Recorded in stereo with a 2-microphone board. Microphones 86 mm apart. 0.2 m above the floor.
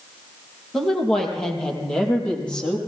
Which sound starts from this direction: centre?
A woman speaking, at 0.7 s.